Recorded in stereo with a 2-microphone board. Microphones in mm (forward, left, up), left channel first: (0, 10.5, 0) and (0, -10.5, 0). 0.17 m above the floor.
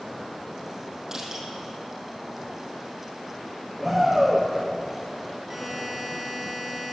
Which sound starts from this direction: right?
Crushing, at 1.1 s.